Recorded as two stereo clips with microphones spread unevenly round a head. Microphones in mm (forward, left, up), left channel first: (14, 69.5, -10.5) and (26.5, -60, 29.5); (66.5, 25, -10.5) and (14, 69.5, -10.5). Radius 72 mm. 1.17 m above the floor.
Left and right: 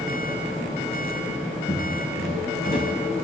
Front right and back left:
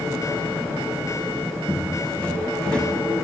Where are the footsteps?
25° left, 4.5 m; by 2.9 s 35° left, 5 m.